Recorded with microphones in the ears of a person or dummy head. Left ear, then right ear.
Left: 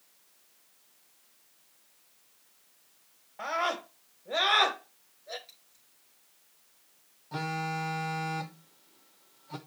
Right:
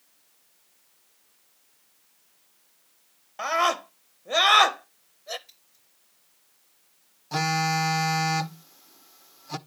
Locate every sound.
3.4 s a scream: 65° right (ahead or behind), 1.3 m
5.5 s scissors: 5° left (ahead or behind), 9 m
7.3 s a phone buzzing: 80° right, 0.5 m